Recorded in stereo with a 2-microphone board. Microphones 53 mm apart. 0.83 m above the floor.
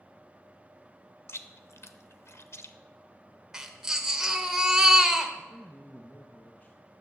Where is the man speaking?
30° left (ahead or behind), 0.8 m.